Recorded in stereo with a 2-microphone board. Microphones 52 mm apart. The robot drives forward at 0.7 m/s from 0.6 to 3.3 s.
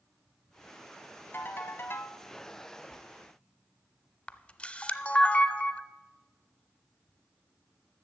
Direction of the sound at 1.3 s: 45° left (ahead or behind).